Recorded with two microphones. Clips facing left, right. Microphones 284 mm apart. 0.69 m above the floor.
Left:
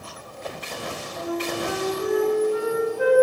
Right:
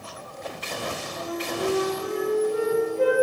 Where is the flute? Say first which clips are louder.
Left 3 dB; 40° right (ahead or behind), 2 m.